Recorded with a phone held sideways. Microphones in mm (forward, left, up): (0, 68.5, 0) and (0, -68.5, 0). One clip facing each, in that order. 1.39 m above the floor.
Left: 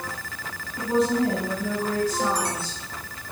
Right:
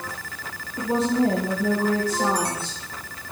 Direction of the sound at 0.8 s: 35° right (ahead or behind).